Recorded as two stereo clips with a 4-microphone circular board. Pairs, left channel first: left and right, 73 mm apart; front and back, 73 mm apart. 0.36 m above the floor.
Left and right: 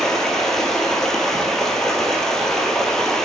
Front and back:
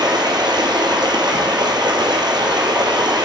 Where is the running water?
175° left, 1.3 m.